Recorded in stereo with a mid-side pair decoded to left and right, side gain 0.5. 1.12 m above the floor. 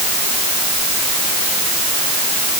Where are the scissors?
No scissors in this recording.